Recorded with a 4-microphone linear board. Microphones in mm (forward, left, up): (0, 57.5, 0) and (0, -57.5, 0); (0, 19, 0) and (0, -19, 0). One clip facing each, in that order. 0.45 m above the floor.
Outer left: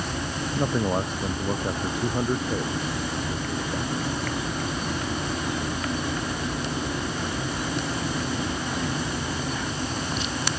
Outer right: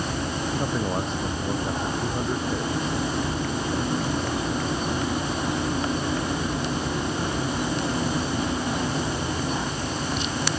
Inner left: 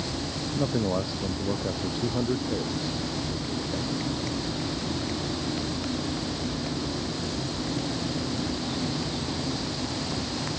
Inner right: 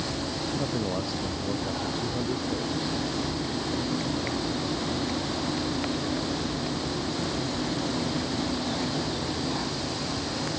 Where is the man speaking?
15° left (ahead or behind).